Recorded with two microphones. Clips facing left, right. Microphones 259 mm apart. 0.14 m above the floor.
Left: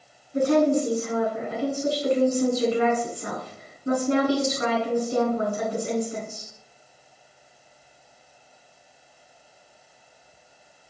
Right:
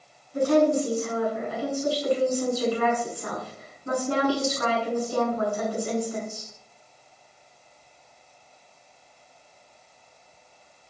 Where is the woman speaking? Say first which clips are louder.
Left 1 dB; 25° left (ahead or behind), 1.1 m.